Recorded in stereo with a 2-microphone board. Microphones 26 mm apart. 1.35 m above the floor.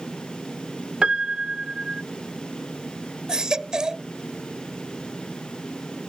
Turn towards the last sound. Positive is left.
turn(degrees=-30)  # may be behind; listen again after turning